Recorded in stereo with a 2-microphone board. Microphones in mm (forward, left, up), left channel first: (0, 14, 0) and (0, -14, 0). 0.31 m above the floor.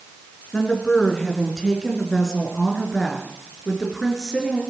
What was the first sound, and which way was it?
A woman speaking, 25° left (ahead or behind).